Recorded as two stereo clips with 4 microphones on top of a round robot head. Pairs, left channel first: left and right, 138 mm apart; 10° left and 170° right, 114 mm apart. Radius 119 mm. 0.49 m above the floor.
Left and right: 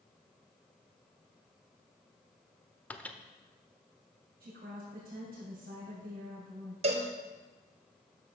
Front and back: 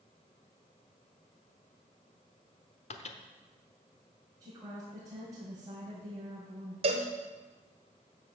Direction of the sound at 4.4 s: 100° right.